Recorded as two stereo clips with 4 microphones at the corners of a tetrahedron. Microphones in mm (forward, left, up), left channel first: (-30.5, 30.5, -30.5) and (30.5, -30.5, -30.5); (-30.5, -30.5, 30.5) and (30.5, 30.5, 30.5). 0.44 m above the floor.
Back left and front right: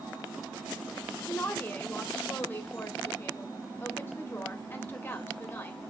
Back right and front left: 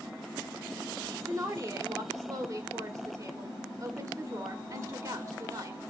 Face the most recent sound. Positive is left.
turn(degrees=80)